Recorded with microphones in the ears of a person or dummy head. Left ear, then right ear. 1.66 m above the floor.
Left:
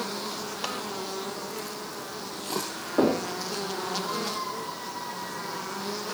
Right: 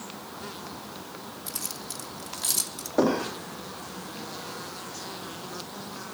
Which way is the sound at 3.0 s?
15° right (ahead or behind).